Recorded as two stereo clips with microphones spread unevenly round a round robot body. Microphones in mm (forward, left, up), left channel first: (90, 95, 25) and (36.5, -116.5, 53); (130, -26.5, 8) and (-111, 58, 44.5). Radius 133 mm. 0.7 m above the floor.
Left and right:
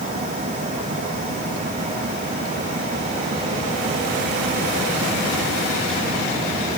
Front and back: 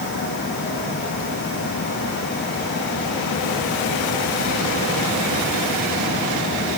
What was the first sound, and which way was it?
Only background noise.